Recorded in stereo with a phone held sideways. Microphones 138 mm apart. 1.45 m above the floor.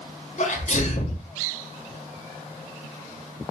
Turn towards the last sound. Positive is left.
turn(degrees=55)  # may be behind; listen again after turning